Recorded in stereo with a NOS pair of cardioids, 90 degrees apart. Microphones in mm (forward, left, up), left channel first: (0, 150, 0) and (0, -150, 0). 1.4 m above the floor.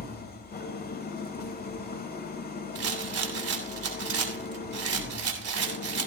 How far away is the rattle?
About 3 m.